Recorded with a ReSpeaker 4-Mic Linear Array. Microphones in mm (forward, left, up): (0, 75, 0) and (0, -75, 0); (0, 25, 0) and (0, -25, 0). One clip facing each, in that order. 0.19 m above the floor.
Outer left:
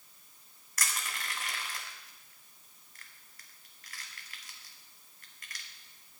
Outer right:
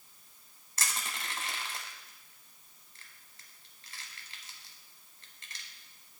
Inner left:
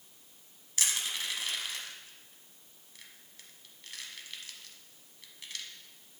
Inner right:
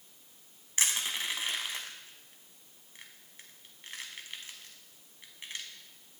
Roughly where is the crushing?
Right.